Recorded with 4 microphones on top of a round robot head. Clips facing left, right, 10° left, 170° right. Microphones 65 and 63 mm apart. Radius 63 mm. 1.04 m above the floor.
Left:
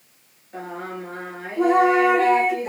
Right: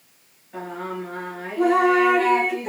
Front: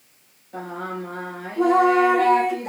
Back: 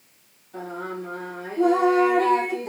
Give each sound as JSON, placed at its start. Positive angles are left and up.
{"t": 0.5, "sound": "singing", "azimuth_deg": 0, "distance_m": 3.5}